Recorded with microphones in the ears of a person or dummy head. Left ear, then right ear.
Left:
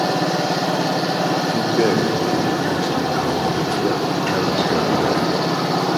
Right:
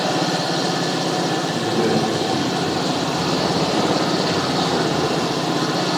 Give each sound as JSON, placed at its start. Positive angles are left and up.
{"t": 1.5, "sound": "a man speaking", "side_deg": 35, "distance_m": 1.3}